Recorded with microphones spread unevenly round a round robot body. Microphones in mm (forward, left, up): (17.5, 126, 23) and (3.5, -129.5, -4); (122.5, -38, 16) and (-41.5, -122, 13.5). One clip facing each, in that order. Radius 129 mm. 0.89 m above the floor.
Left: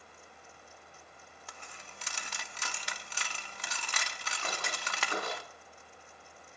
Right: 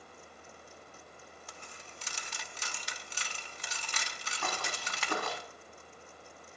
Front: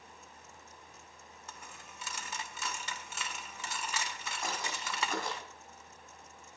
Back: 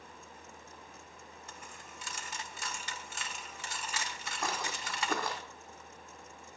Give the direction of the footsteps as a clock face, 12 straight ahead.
5 o'clock.